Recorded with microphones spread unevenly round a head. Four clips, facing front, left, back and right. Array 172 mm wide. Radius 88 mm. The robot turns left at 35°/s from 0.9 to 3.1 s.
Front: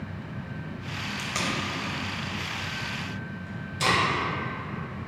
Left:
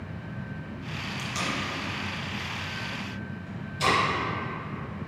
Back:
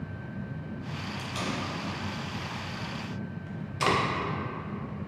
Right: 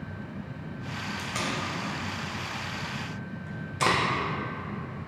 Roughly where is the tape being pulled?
Ahead.